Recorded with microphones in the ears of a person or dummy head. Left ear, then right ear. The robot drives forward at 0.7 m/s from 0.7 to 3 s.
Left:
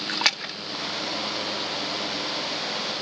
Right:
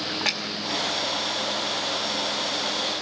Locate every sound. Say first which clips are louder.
0.1 s a splash: left 5 dB; 60° left (ahead or behind), 1.4 m